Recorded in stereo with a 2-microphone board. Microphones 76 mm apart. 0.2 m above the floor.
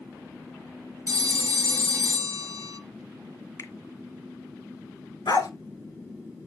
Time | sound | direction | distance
1.1 | a phone ringing | 45° right (ahead or behind) | 2.5 m
3.6 | a finger snap | 40° left (ahead or behind) | 1.3 m
5.3 | a dog barking | 70° left (ahead or behind) | 1.5 m